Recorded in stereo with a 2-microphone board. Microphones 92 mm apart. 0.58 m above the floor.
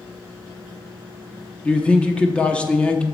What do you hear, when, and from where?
1.6 s a man speaking: 10° left (ahead or behind), 0.6 m